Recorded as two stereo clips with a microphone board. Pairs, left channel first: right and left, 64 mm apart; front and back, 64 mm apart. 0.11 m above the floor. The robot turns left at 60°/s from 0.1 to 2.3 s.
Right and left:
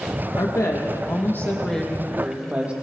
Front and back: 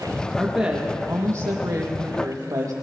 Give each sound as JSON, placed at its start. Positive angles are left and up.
{"t": 0.4, "sound": "a woman speaking", "azimuth_deg": -85, "distance_m": 3.0}